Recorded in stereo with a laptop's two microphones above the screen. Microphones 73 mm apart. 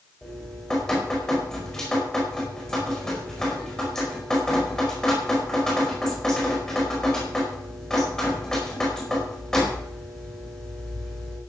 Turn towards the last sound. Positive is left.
turn(degrees=5)  # may be behind; listen again after turning